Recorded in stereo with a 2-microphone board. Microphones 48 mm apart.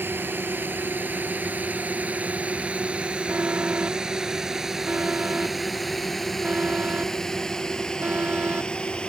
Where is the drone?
45° right (ahead or behind); by 9.1 s 20° left (ahead or behind).